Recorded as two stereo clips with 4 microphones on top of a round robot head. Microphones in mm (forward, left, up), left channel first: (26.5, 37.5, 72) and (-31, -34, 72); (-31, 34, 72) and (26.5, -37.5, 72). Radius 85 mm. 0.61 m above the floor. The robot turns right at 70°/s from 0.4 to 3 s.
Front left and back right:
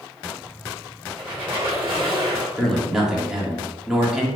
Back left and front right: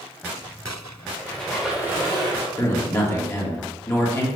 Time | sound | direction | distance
1.2 | a squeak | 170° right | 1.8 m
2.6 | a man speaking | 125° left | 1.3 m